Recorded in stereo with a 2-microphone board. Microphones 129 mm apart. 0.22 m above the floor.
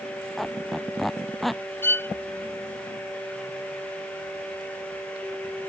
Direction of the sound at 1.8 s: 15° left (ahead or behind).